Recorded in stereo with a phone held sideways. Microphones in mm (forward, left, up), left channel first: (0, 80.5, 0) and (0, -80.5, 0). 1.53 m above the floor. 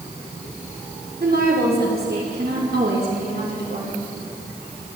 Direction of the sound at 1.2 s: 65° right (ahead or behind).